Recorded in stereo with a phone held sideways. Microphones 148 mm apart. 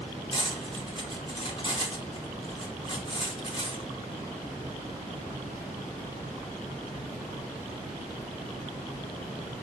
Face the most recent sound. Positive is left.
turn(degrees=35)  # may be behind; listen again after turning